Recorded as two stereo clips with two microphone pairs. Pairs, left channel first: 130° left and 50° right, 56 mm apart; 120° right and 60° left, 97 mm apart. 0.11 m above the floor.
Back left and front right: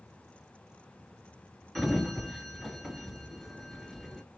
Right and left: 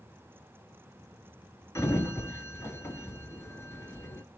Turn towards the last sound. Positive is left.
turn(degrees=-150)